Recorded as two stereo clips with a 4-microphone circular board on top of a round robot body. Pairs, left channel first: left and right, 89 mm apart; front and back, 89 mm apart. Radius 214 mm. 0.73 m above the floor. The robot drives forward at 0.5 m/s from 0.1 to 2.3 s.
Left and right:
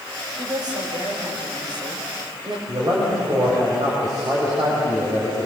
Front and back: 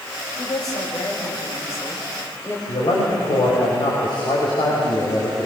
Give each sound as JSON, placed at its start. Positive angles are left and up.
{"t": 0.4, "sound": "a woman speaking", "azimuth_deg": -50, "distance_m": 5.0}
{"t": 2.7, "sound": "a man speaking", "azimuth_deg": -40, "distance_m": 5.0}